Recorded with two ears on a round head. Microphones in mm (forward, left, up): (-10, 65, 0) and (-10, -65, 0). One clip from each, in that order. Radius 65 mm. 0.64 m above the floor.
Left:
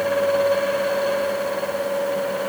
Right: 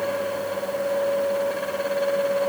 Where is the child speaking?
No child speaking in this recording.